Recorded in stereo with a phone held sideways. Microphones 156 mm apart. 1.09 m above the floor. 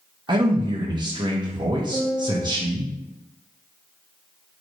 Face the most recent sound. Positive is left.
turn(degrees=35)  # may be behind; listen again after turning